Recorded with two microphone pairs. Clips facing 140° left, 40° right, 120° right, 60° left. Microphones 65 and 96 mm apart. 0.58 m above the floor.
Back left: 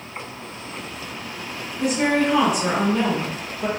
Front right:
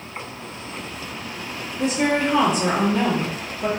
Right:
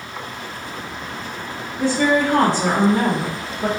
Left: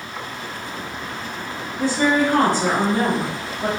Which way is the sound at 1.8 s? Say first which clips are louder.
Back left 1 dB, right 1 dB; 150° right.